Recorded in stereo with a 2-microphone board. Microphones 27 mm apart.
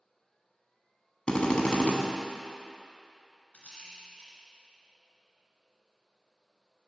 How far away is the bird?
I don't hear a bird.